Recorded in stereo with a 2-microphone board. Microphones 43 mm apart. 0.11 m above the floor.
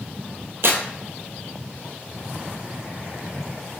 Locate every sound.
0.6 s tearing paper: 70° right (ahead or behind), 0.5 m